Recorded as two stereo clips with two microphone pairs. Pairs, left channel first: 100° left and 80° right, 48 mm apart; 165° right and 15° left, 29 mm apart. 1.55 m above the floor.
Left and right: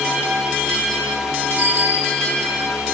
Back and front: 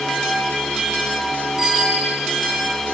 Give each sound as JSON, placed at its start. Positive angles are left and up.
{"t": 1.6, "sound": "a bicycle bell", "azimuth_deg": -55, "distance_m": 3.5}